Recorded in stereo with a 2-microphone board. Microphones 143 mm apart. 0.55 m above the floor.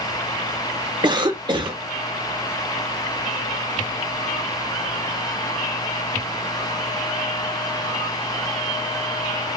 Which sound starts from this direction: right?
A cough, at 1.0 s.